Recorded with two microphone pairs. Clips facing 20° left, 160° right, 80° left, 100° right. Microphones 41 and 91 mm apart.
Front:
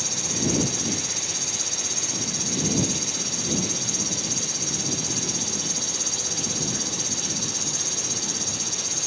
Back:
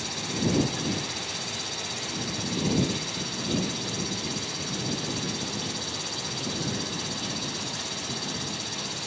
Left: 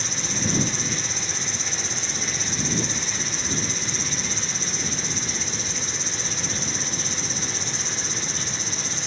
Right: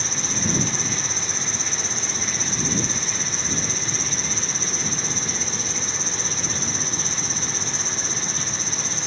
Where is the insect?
100° right.